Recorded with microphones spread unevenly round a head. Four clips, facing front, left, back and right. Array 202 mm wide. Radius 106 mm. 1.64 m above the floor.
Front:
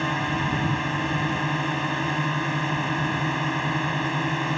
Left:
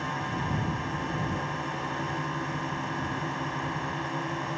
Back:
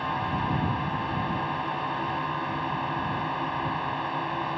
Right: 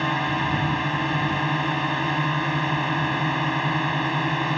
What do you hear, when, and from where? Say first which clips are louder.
0.0 s a drone: right 8 dB, front 2 dB; 60° right